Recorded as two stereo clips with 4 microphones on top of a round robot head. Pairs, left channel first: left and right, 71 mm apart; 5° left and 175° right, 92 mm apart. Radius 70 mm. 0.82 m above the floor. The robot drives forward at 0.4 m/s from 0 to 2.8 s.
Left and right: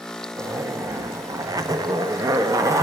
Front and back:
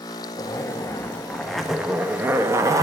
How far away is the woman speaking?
No woman speaking in this recording.